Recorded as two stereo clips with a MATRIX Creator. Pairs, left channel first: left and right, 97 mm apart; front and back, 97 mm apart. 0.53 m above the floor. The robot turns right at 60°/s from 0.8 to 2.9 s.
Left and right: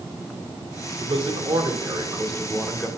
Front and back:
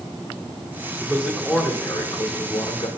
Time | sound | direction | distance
1.0 | a man speaking | 120° right | 2 m